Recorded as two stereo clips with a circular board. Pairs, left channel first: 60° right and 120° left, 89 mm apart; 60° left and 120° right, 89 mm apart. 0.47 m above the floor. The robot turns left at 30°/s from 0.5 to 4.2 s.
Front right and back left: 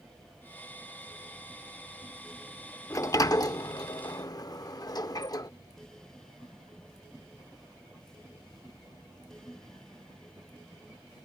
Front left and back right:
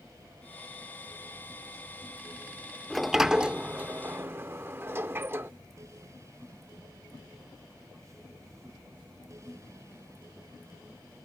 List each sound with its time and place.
2.9 s a sliding door: 30° right; by 5.5 s 65° right